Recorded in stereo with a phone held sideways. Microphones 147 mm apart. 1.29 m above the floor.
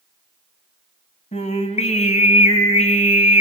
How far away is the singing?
About 1.8 m.